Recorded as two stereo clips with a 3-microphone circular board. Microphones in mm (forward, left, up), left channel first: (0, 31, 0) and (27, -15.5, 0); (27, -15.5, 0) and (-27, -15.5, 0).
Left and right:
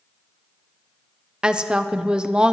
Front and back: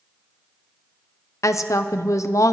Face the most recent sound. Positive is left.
turn(degrees=15)